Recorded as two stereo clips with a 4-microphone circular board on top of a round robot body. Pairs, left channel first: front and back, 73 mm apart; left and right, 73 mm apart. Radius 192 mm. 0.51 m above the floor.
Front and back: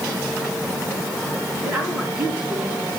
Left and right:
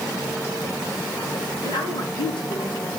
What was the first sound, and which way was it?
A woman speaking, 115° left.